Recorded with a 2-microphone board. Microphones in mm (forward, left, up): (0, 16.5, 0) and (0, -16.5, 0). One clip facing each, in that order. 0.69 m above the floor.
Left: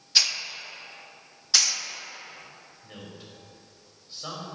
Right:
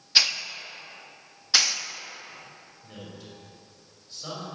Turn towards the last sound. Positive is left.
turn(degrees=15)  # may be behind; listen again after turning